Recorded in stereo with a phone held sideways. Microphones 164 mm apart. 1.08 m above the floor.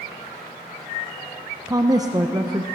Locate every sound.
1.7 s a woman speaking: 25° right (ahead or behind), 0.6 m